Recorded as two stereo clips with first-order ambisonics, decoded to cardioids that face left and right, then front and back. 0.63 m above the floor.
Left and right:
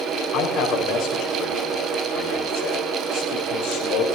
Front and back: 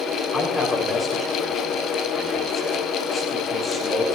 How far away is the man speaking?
About 4 m.